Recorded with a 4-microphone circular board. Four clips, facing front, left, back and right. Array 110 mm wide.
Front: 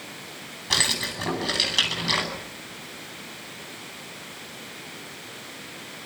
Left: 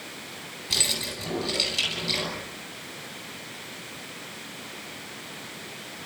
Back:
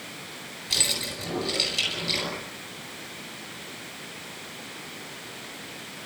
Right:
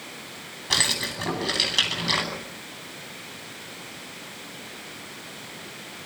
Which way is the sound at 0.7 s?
45° right.